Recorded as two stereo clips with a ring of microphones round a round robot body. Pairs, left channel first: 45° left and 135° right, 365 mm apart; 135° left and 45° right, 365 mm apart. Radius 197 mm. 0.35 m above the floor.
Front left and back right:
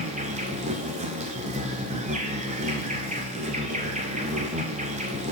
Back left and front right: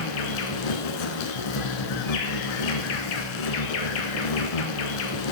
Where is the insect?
150° left, 0.8 m.